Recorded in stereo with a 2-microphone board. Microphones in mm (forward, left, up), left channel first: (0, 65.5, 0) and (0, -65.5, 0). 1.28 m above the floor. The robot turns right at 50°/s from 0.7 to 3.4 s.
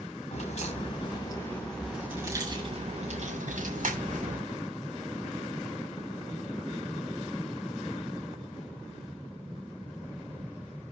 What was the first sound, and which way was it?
A crack, 125° left.